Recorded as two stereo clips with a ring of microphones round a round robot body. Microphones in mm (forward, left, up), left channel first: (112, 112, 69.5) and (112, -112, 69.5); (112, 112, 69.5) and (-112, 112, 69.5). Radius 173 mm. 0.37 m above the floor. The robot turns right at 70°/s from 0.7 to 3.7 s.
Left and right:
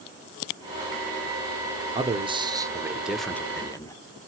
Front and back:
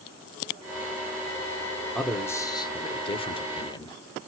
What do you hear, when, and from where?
1.9 s a man speaking: 85° right, 0.8 m; by 4.0 s 40° left, 0.8 m